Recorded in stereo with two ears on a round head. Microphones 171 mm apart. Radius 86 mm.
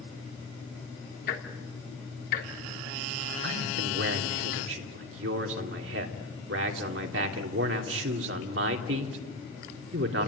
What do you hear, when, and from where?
1.3 s ticking: 55° left (ahead or behind), 3 m
3.4 s a man speaking: 70° right (ahead or behind), 3 m